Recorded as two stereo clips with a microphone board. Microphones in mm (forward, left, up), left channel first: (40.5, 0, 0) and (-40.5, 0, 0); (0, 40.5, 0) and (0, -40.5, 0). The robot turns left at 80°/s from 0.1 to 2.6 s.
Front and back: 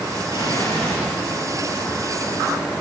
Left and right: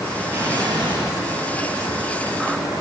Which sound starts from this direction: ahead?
An explosion, at 0.3 s.